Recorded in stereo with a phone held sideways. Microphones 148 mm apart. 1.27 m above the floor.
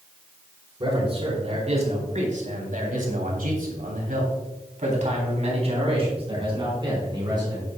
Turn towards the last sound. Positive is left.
turn(degrees=-30)  # may be behind; listen again after turning